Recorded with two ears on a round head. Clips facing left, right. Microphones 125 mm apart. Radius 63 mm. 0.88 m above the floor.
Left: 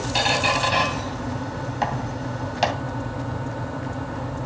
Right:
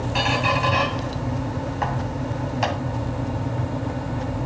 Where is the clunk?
I don't hear a clunk.